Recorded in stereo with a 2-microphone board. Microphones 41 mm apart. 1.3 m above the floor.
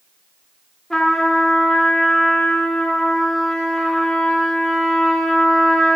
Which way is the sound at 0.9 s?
15° left (ahead or behind).